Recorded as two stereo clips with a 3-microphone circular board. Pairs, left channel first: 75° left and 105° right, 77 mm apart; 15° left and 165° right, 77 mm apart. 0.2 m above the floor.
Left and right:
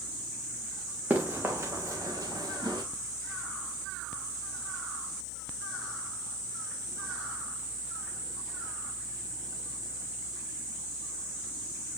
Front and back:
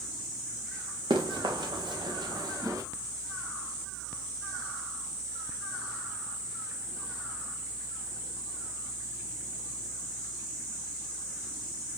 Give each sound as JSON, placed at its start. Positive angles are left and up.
{"t": 1.1, "sound": "running footsteps", "azimuth_deg": -170, "distance_m": 2.5}